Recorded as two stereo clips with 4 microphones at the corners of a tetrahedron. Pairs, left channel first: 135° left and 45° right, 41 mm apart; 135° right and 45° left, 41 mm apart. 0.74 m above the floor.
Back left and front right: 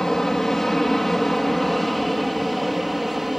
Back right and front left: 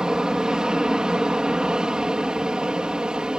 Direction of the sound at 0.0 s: 75° left.